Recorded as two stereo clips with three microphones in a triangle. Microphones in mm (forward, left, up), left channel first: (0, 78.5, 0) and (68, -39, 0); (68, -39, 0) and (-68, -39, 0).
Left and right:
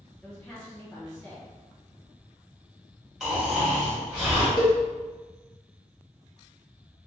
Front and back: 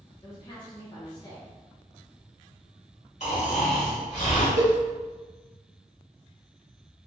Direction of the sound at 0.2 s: 40° left.